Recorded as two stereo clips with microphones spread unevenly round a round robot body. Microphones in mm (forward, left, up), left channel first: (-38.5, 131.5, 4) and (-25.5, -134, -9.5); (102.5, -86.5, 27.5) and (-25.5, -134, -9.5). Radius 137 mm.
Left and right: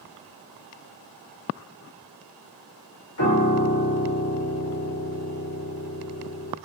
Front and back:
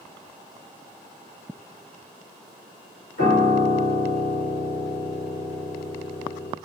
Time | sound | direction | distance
3.2 | a piano | 70° left | 3 m